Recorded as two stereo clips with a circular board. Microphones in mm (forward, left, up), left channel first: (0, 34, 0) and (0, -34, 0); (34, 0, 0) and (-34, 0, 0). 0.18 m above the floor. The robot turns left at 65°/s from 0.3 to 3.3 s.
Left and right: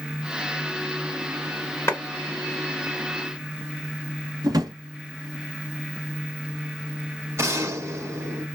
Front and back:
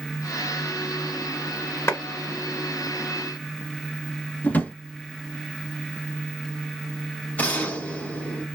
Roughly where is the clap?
Ahead left.